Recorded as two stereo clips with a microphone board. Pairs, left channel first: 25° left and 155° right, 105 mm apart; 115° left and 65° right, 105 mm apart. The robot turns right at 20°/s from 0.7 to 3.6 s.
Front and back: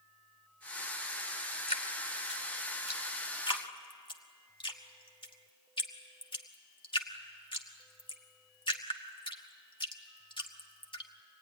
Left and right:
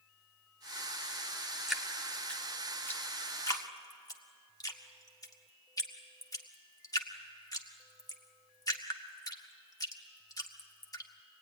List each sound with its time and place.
1.7 s dripping: 20° left, 1.7 m; by 11.1 s 60° left, 1.7 m